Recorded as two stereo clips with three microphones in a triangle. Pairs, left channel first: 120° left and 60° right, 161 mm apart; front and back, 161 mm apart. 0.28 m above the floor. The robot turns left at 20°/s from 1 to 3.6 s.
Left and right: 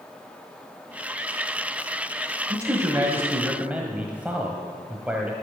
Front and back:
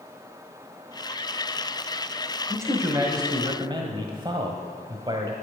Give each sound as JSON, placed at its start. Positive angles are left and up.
{"t": 2.5, "sound": "a man speaking", "azimuth_deg": -115, "distance_m": 1.2}